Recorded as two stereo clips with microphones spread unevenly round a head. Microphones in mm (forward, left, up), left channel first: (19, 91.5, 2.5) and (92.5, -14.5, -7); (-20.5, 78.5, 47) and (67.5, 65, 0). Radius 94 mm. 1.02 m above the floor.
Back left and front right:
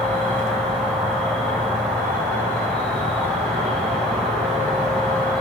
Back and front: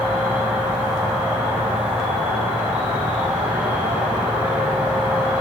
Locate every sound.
0.0 s an insect: 40° left, 2 m